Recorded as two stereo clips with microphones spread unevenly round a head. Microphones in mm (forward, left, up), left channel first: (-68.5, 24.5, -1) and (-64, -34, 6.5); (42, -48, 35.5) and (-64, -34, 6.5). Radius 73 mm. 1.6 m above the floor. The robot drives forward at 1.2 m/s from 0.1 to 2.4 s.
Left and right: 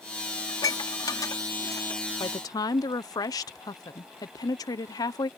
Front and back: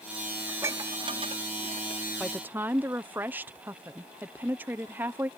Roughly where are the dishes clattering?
Left.